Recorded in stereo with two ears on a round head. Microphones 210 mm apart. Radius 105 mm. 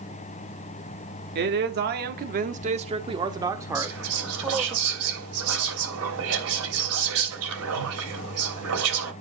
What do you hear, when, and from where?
1.4 s a man speaking: 45° right (ahead or behind), 1.1 m; by 4.8 s centre (ahead or behind), 1.7 m
3.8 s whispering: 70° right (ahead or behind), 3 m